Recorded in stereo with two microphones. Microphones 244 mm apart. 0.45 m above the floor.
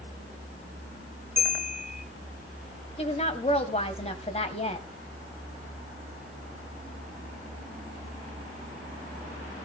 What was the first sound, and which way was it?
A bell, 35° right (ahead or behind).